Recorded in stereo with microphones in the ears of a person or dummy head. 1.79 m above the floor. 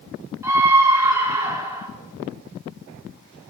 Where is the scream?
10° right (ahead or behind), 4 m.